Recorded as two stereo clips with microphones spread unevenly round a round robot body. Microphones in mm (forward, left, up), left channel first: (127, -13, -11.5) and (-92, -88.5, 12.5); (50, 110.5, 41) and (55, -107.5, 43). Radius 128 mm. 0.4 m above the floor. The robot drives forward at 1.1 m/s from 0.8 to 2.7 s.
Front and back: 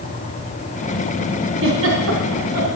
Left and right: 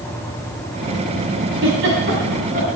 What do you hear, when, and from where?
1.6 s a giggle: 130° right, 3 m; by 2.7 s 140° right, 4 m